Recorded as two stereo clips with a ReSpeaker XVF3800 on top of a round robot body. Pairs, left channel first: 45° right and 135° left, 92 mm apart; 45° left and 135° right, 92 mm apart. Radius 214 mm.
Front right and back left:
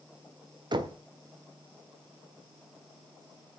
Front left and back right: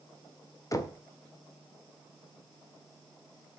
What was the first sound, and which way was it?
Knocking, 100° left.